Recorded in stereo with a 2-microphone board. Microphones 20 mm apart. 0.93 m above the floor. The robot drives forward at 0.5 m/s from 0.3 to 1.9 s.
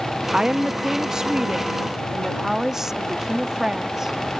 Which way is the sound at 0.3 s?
45° right (ahead or behind).